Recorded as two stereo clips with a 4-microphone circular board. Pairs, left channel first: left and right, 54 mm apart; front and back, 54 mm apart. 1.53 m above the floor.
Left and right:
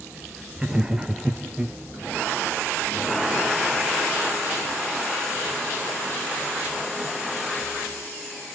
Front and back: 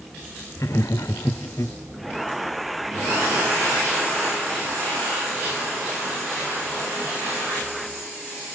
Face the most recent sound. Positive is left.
turn(degrees=-15)